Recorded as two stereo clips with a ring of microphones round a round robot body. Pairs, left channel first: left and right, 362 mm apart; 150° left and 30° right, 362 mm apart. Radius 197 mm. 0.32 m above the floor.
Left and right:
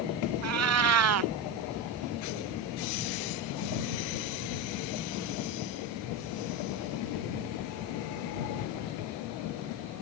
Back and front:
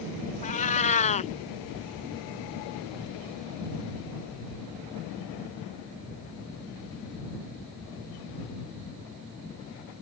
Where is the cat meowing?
140° right.